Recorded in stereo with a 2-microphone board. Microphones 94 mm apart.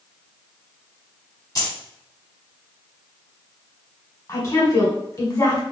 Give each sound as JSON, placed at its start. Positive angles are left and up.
{"t": 1.6, "sound": "keys jangling", "side_deg": 40, "distance_m": 1.2}
{"t": 4.3, "sound": "a woman speaking", "side_deg": 35, "distance_m": 1.4}